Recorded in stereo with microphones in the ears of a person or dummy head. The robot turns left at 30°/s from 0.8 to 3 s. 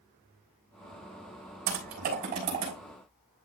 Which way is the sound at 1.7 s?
60° right (ahead or behind).